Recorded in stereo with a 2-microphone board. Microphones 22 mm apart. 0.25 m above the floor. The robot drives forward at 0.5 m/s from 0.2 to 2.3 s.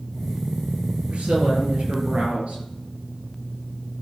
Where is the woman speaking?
65° right (ahead or behind), 5 m; by 2.6 s 60° right (ahead or behind), 5.5 m.